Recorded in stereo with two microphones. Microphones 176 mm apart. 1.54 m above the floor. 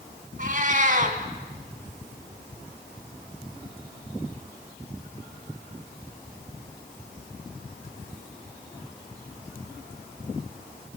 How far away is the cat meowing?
About 2.5 m.